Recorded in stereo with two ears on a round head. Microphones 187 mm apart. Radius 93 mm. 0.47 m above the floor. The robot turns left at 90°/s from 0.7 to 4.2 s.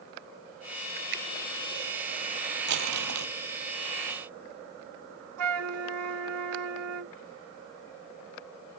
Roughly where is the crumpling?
Ahead right.